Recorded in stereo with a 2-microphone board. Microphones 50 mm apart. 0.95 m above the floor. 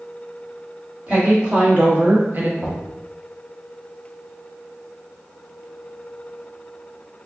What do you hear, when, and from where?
1.1 s a woman speaking: 25° right (ahead or behind), 1.6 m; by 2.5 s 45° right (ahead or behind), 0.8 m
2.6 s knocking: 15° right (ahead or behind), 1.0 m